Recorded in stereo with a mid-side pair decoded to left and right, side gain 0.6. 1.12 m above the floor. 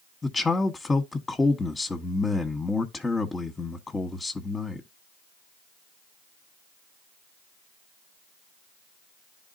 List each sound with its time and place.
0.2 s a man speaking: 15° left, 1.1 m